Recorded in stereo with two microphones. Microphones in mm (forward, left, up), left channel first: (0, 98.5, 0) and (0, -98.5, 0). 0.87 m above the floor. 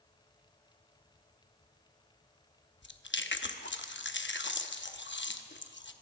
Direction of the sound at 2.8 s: 75° left (ahead or behind).